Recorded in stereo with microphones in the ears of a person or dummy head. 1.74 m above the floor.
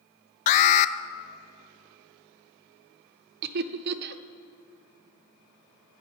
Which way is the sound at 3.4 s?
55° right (ahead or behind).